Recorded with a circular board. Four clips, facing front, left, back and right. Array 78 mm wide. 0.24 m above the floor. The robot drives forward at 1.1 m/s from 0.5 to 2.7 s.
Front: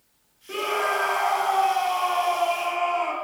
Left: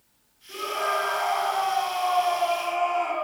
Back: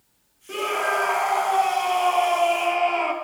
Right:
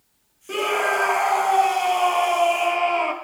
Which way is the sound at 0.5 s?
90° right.